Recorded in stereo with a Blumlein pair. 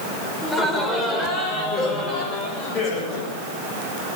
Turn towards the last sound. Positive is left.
turn(degrees=30)